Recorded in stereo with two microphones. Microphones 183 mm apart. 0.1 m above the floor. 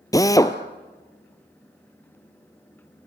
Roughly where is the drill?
Centre.